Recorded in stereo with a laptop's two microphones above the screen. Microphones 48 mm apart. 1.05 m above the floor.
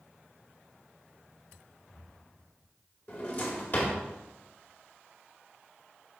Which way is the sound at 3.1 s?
40° left (ahead or behind).